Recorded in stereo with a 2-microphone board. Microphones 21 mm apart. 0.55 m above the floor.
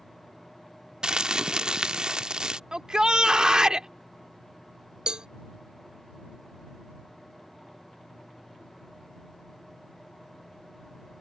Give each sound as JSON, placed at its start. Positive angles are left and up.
{"t": 1.0, "sound": "crumpling", "side_deg": -45}
{"t": 2.7, "sound": "a shout", "side_deg": -40}
{"t": 5.1, "sound": "a cowbell", "side_deg": -50}